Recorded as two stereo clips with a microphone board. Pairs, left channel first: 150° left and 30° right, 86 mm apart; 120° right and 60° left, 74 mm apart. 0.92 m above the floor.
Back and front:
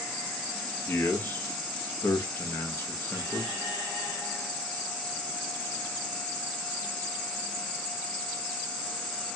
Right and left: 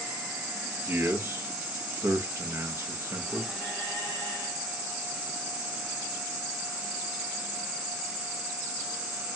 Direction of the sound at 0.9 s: 95° left.